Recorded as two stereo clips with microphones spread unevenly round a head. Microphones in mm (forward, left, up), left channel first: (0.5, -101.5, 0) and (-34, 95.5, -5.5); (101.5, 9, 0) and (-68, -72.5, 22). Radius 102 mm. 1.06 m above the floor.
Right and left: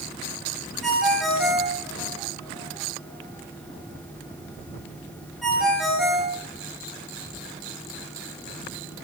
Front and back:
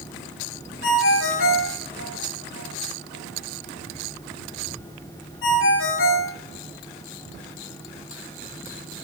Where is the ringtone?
10° left, 2 m.